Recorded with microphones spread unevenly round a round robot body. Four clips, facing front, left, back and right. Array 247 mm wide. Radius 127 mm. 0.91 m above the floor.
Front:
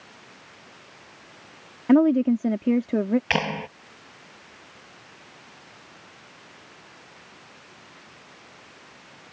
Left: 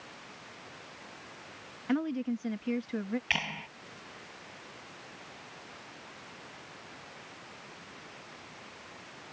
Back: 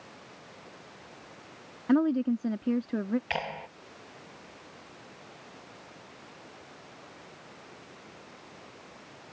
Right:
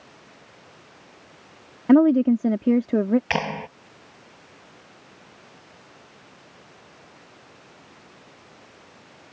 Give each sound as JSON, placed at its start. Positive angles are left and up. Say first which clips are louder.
{"t": 1.9, "sound": "a woman speaking", "louder": "right 16 dB, front 7 dB", "azimuth_deg": -65}
{"t": 3.3, "sound": "a clap", "louder": "right 11 dB, front 8 dB", "azimuth_deg": -30}